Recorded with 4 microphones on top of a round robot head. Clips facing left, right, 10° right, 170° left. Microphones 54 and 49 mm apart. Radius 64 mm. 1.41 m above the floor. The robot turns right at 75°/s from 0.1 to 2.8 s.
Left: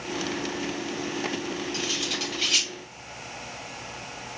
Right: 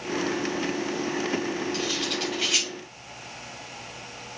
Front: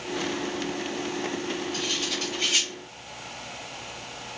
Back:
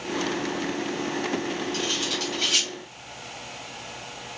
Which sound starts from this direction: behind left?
Cutlery clinking, at 1.7 s.